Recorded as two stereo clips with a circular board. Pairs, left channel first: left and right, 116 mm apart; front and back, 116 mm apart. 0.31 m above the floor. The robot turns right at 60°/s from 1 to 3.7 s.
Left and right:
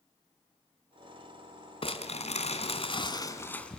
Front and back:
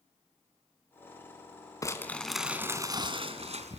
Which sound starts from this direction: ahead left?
Crumpling, at 1.8 s.